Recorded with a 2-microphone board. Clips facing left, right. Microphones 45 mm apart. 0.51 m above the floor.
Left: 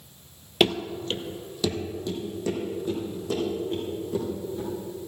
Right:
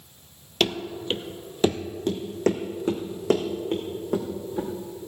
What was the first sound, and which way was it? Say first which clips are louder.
Running footsteps: left 2 dB; 10° left (ahead or behind).